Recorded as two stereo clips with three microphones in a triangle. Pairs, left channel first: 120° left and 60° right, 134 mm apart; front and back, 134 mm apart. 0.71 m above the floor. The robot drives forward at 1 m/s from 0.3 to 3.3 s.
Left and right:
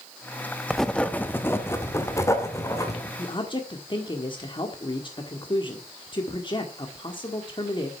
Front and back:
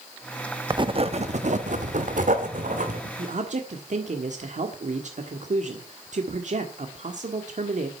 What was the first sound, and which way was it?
Writing, 150° right.